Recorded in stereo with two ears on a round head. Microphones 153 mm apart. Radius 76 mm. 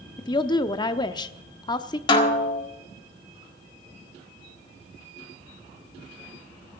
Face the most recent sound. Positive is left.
turn(degrees=30)  # may be behind; listen again after turning